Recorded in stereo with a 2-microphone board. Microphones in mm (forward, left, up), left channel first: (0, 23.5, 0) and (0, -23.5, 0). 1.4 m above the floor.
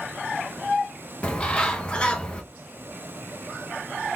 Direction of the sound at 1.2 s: 25° left (ahead or behind).